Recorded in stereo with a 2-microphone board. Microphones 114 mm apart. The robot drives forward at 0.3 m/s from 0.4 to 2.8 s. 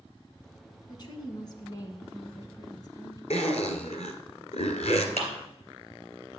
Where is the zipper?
75° left (ahead or behind), 1.5 m.